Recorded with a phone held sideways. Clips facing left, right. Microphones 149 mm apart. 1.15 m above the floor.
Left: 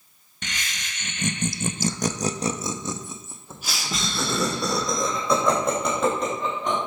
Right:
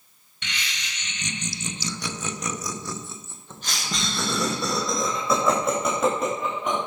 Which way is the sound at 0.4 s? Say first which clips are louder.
Left 1 dB; 45° left (ahead or behind).